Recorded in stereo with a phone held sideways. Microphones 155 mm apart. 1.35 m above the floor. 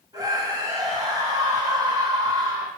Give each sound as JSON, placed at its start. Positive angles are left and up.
{"t": 0.1, "sound": "a scream", "side_deg": -25, "distance_m": 7.0}